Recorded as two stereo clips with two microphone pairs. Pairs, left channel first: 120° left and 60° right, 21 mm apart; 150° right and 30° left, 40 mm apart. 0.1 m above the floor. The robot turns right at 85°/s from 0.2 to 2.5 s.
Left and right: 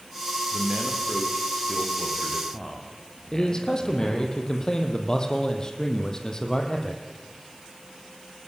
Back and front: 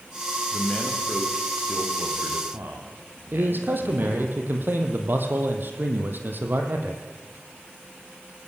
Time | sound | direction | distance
0.5 | a man speaking | 120° right | 6 m
3.3 | a man speaking | 60° left | 4 m